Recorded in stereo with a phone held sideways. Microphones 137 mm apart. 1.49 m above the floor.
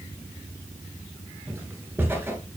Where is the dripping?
No dripping in this recording.